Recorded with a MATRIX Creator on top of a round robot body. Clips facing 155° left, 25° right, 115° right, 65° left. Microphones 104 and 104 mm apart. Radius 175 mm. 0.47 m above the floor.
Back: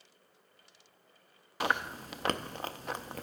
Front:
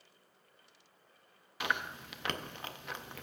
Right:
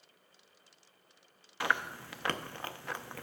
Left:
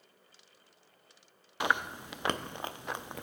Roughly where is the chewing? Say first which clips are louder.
Back 4 dB, left 2 dB; behind left.